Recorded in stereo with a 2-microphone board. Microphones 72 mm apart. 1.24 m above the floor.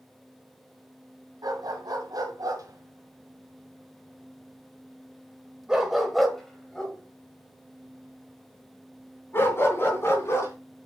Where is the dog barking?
70° right (ahead or behind), 2.5 m; by 10.5 s 40° left (ahead or behind), 3 m.